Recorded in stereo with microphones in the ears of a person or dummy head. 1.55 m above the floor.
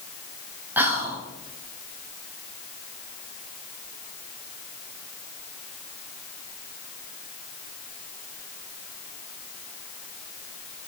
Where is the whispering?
5° right (ahead or behind), 0.7 m.